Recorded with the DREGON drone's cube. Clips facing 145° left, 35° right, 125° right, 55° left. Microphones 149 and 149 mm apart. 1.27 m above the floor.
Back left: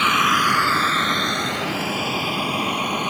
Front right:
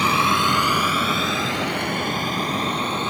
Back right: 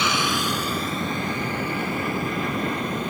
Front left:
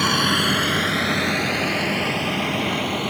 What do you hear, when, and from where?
0.0 s a vehicle: 20° left; by 3.1 s 70° left